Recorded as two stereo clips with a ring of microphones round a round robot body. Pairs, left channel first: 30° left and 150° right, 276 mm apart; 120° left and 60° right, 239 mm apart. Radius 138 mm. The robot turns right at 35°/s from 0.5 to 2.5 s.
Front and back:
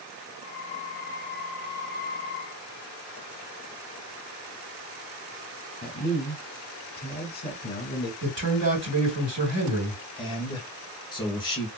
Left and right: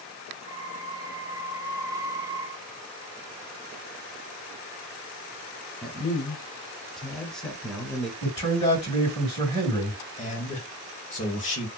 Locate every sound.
5.8 s a man speaking: 35° left, 1.0 m
8.2 s a man speaking: straight behind, 2.0 m
10.2 s a man speaking: 90° left, 1.5 m